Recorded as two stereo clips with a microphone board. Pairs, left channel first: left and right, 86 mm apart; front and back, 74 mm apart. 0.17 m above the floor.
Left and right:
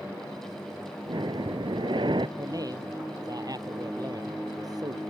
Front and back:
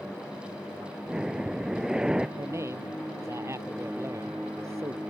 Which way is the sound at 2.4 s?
130° right.